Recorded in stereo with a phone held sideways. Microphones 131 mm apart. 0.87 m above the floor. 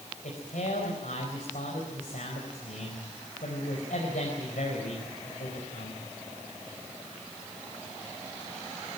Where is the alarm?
No alarm in this recording.